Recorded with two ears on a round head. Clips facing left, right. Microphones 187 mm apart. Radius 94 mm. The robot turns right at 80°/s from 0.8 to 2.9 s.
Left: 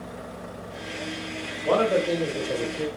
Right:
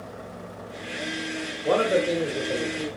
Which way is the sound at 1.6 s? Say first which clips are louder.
Even; 25° right (ahead or behind).